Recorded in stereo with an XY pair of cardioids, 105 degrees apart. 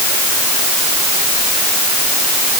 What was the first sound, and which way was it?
Only background noise.